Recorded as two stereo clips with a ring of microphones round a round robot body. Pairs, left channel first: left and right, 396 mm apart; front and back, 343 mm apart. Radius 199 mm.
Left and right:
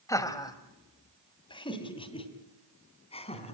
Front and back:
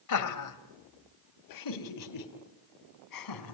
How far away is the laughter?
About 1.9 m.